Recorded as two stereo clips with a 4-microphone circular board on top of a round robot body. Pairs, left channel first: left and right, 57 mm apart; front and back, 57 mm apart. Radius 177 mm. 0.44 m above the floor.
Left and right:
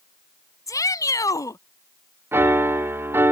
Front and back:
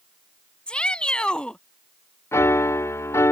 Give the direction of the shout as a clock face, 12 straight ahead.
10 o'clock.